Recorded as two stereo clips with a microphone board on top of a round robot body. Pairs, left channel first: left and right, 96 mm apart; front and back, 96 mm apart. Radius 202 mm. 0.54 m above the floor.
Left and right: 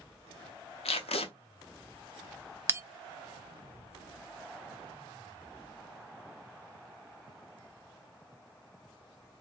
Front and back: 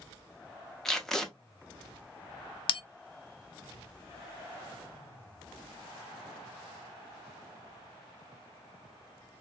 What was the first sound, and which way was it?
Tape being pulled, 85° left.